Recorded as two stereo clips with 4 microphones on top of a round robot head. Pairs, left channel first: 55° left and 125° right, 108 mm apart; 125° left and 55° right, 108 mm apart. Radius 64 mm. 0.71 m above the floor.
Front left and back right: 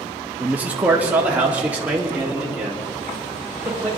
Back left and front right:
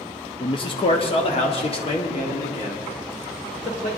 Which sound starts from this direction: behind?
A man speaking, at 0.4 s.